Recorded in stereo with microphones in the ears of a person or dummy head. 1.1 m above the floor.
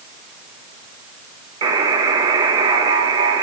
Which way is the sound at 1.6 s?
30° right (ahead or behind).